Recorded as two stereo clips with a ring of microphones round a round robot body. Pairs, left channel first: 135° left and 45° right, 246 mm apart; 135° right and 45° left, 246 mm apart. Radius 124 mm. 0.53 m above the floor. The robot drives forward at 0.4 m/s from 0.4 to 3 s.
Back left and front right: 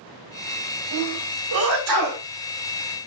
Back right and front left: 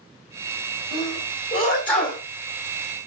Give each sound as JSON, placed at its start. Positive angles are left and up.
{"t": 0.9, "sound": "a sneeze", "azimuth_deg": -45, "distance_m": 2.0}